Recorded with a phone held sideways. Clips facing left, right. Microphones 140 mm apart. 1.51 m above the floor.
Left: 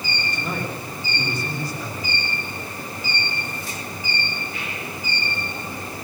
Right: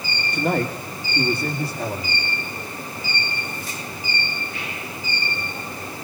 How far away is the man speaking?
About 3 m.